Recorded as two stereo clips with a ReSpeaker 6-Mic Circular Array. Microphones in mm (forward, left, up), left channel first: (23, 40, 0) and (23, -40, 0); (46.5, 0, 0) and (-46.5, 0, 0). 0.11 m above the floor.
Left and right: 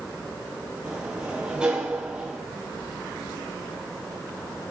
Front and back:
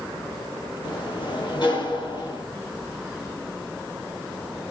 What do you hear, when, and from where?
0.8 s a sliding door: 15° right, 1.6 m